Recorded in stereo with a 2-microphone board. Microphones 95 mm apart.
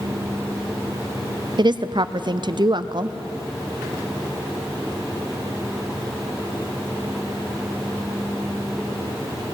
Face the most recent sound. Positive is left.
turn(degrees=-50)  # may be behind; listen again after turning